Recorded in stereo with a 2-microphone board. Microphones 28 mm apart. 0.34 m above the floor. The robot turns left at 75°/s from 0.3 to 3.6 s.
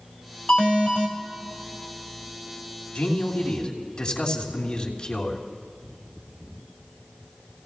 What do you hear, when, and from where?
0.5 s an alarm: 100° left, 3 m; by 1.1 s 55° left, 3 m
3.0 s a man speaking: 85° left, 3 m; by 5.4 s 35° left, 3 m